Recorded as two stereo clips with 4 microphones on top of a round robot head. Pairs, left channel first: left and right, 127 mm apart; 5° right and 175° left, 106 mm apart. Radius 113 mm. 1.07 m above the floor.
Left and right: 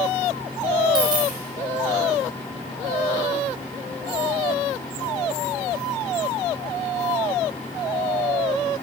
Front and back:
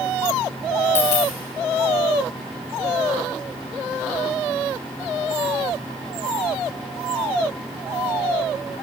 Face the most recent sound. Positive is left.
turn(degrees=-30)